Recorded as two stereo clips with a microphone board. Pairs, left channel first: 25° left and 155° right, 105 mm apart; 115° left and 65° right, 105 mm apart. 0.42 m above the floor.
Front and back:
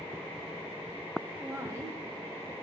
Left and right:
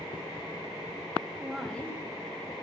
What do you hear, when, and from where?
1.4 s a woman speaking: 120° right, 0.8 m; by 2.5 s 150° left, 1.5 m